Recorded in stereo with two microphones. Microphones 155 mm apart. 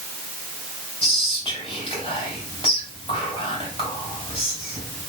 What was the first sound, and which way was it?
Whispering, 40° left (ahead or behind).